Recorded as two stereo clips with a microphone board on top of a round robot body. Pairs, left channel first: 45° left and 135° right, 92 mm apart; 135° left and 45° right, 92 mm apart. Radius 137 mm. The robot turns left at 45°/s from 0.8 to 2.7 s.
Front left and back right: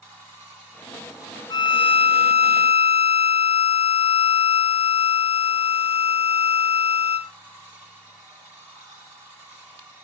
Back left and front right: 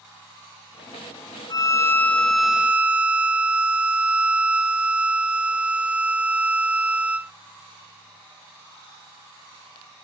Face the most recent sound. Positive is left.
turn(degrees=35)